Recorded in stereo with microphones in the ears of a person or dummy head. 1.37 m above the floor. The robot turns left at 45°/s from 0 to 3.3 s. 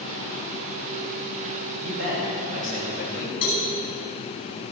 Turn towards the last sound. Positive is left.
turn(degrees=50)  # may be behind; listen again after turning